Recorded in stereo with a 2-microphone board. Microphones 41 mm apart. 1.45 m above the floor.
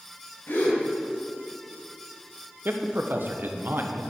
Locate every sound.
0.5 s a gasp: 65° left (ahead or behind), 5 m
2.6 s a man speaking: 60° right (ahead or behind), 1.3 m